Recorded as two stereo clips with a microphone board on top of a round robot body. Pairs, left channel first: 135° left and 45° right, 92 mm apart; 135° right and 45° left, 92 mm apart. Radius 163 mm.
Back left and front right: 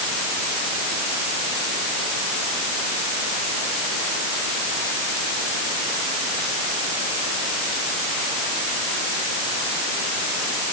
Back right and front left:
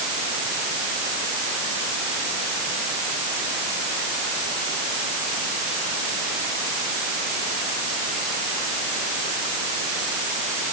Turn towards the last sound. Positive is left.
No sound to turn to.